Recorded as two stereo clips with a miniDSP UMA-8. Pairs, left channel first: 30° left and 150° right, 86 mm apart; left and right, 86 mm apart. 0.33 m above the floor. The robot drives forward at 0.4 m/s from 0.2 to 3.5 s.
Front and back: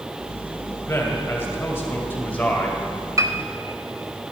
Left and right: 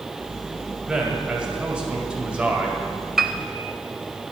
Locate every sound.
0.9 s a man speaking: 15° right, 2 m; by 2.8 s 30° right, 1.6 m
3.2 s a piano: 175° right, 0.7 m